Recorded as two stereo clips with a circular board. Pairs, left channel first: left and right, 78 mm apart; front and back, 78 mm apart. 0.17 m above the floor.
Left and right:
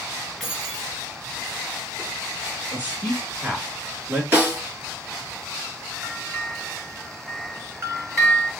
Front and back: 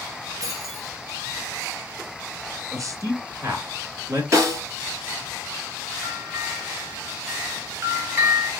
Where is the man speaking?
155° right, 1.9 m.